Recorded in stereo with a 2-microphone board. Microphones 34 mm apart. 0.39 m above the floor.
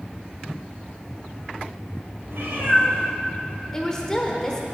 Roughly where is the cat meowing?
Right.